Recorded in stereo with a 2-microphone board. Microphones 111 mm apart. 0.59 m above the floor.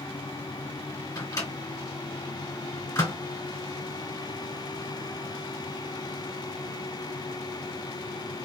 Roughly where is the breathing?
I don't hear breathing.